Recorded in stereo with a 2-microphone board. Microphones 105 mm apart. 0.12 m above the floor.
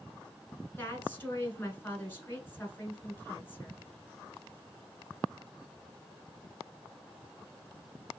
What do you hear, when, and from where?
0.8 s a woman speaking: 20° left (ahead or behind), 1.1 m